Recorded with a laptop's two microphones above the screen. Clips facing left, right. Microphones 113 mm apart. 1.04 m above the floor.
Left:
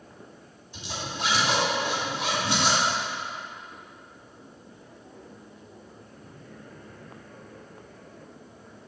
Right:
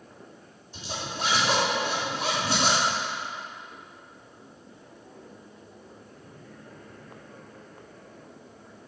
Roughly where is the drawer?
No drawer in this recording.